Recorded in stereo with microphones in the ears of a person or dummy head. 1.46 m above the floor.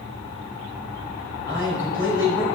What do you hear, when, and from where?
1.4 s a man speaking: 20° left (ahead or behind), 4.5 m